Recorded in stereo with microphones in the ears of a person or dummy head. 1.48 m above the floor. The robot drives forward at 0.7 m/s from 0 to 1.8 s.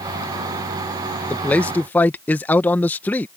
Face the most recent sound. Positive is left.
turn(degrees=5)  # may be behind; listen again after turning